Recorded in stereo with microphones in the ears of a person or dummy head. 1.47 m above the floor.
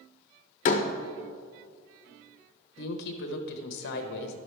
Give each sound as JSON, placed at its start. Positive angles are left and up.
{"t": 0.7, "sound": "a door slam", "side_deg": 45, "distance_m": 0.7}
{"t": 2.8, "sound": "a woman speaking", "side_deg": 65, "distance_m": 0.9}